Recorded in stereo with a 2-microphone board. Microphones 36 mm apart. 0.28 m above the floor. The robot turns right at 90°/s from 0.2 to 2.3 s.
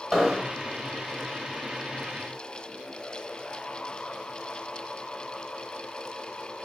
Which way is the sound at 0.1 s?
170° right.